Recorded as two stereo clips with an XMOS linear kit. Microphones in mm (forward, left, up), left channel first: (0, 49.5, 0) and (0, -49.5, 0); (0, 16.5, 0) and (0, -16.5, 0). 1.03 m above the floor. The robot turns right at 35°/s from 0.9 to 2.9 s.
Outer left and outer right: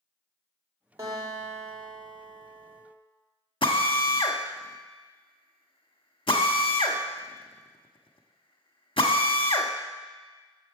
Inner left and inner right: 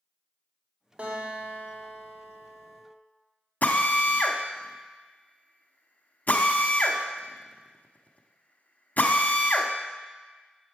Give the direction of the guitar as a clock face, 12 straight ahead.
5 o'clock.